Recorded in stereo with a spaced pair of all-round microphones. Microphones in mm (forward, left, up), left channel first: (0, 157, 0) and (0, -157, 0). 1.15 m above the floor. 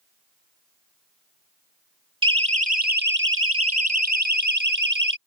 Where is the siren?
15° right (ahead or behind); by 5.2 s 75° right (ahead or behind).